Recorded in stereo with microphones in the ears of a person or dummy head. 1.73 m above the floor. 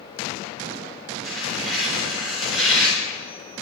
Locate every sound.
1.2 s tearing paper: 10° left (ahead or behind), 8 m